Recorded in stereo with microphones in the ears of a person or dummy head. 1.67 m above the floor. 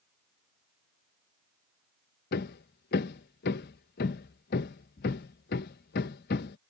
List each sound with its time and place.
2.3 s hammering: 55° left (ahead or behind)